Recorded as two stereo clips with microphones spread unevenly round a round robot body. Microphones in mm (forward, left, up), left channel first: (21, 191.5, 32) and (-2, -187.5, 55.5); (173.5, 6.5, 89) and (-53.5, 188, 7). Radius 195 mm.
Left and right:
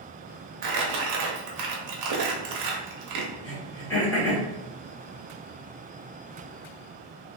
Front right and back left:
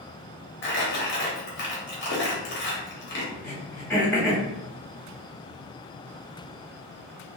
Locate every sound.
0.6 s crumpling: 100° right, 0.8 m
3.4 s throat clearing: 60° left, 1.5 m